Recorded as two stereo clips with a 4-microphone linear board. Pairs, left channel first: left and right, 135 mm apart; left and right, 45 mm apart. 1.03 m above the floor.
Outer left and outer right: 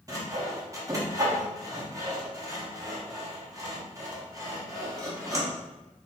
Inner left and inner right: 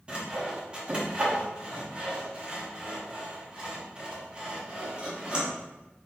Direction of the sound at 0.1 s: 25° right (ahead or behind).